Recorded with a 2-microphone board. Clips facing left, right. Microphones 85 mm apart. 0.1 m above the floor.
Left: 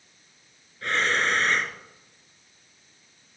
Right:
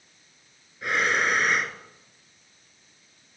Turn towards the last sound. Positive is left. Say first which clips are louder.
# right 1 dB
turn(degrees=-10)  # may be behind; listen again after turning